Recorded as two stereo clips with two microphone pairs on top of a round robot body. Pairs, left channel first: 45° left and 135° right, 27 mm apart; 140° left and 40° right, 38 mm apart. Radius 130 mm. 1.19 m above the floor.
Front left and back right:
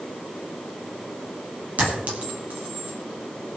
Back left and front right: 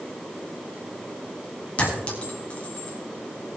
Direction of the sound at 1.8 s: 165° right.